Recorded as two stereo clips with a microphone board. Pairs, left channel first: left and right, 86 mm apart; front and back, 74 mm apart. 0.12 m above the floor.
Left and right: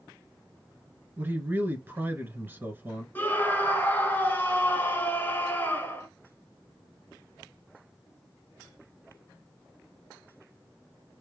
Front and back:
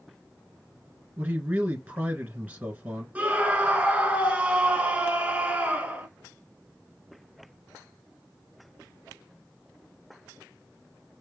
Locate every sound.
1.2 s a man speaking: 130° right, 1.5 m
3.1 s a scream: 125° left, 1.2 m